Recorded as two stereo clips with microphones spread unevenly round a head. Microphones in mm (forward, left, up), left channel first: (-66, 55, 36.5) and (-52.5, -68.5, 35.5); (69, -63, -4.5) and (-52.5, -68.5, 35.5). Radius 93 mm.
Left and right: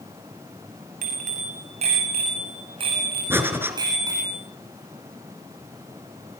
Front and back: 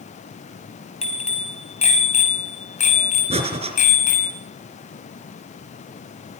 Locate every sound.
1.0 s a bicycle bell: 35° right, 6.5 m; by 4.3 s 10° right, 6 m
3.3 s breathing: 155° right, 4 m